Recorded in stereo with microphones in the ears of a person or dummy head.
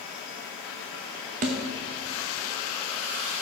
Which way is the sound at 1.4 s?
35° right (ahead or behind).